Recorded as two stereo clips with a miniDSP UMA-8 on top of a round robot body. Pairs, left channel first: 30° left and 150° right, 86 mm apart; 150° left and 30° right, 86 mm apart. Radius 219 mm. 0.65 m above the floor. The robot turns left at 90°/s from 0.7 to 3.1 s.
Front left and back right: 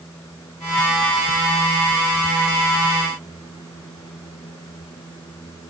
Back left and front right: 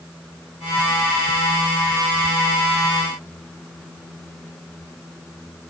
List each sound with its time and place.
Only background noise.